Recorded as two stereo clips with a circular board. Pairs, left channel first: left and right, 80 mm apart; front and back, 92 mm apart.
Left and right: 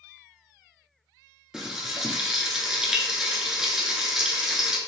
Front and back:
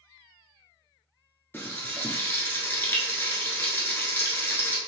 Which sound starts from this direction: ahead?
Frying, at 1.5 s.